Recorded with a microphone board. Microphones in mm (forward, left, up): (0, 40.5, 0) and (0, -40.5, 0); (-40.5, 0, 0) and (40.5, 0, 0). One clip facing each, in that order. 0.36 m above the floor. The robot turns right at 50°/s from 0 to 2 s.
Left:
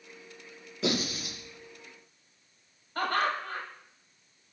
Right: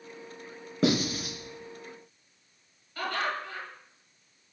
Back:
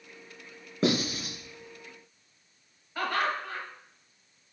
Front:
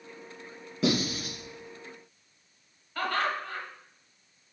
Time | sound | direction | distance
0.8 | writing | 135° right | 3.5 m
3.0 | laughter | 105° left | 2 m